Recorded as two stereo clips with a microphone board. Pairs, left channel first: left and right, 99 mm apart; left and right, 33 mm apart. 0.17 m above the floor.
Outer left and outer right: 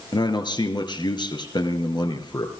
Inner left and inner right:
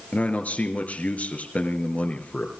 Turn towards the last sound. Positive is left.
turn(degrees=50)  # may be behind; listen again after turning